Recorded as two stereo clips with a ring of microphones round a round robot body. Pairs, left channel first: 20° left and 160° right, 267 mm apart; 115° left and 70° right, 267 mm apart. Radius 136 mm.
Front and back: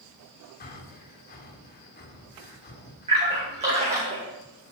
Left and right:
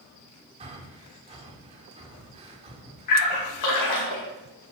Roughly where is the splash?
Behind left.